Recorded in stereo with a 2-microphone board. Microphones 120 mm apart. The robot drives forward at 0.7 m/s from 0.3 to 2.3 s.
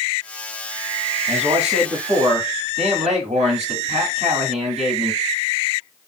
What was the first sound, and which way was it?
A man speaking, 65° right (ahead or behind).